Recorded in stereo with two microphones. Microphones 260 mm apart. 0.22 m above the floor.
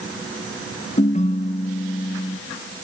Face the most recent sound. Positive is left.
turn(degrees=25)  # may be behind; listen again after turning